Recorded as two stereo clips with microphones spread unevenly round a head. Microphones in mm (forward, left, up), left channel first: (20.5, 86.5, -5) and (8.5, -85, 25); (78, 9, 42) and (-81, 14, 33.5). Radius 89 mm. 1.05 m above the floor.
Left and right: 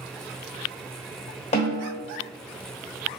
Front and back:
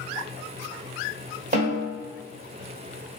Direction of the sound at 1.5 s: 140° left.